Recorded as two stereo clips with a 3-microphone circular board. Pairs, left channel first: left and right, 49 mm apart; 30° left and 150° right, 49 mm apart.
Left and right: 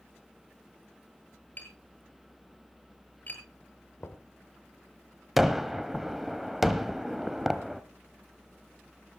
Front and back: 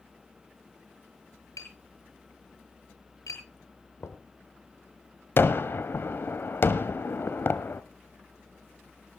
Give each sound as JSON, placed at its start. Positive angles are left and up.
{"t": 1.6, "sound": "tapping", "azimuth_deg": 35, "distance_m": 7.5}
{"t": 4.0, "sound": "knocking", "azimuth_deg": 55, "distance_m": 1.5}
{"t": 5.4, "sound": "a gunshot", "azimuth_deg": -5, "distance_m": 1.0}